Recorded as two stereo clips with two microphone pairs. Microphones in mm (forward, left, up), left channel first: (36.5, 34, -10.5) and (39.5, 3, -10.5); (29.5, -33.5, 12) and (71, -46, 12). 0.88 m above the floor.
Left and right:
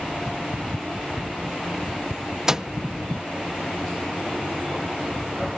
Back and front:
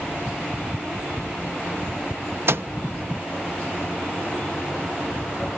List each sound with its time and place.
2.5 s a microwave: 15° right